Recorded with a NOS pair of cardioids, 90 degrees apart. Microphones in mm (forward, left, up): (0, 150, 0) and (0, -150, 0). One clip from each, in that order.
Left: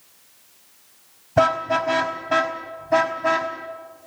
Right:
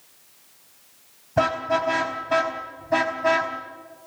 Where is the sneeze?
No sneeze in this recording.